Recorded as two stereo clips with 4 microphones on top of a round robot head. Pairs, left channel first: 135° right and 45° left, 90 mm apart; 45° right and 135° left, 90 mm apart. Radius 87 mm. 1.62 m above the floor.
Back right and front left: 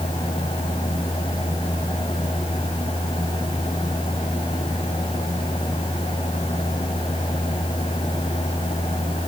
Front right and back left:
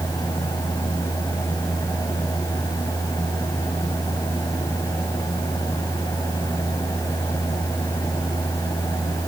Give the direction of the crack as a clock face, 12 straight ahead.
I don't hear a crack.